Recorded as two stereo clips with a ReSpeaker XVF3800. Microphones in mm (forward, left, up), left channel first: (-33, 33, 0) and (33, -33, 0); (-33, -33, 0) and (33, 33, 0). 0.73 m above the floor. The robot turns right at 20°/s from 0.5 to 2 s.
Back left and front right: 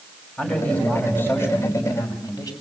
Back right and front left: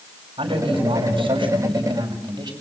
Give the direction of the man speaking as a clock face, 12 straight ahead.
10 o'clock.